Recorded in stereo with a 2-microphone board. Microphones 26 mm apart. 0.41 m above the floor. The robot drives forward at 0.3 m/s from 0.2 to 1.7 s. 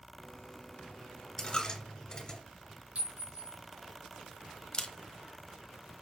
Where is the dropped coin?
35° left (ahead or behind), 2 m.